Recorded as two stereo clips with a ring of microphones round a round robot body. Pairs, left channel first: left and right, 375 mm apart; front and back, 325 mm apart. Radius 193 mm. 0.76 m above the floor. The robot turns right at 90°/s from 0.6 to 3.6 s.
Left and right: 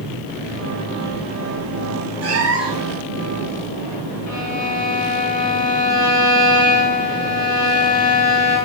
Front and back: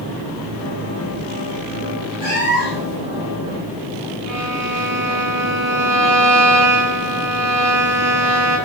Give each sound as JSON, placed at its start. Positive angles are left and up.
{"t": 2.2, "sound": "a cat meowing", "azimuth_deg": -40, "distance_m": 4.0}
{"t": 4.3, "sound": "a violin", "azimuth_deg": 140, "distance_m": 5.5}